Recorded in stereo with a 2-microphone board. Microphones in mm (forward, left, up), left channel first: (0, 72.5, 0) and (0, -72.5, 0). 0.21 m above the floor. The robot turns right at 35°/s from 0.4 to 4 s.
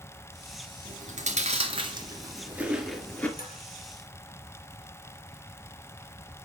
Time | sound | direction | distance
0.8 | chewing | 65° right (ahead or behind) | 2.5 m
3.4 | dishes clattering | 80° left | 3 m